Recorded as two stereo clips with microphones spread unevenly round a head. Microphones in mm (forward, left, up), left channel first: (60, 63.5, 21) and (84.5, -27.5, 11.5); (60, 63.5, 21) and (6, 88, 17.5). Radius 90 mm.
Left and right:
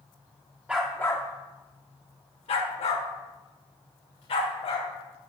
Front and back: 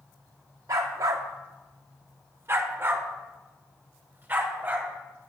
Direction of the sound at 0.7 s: 160° right.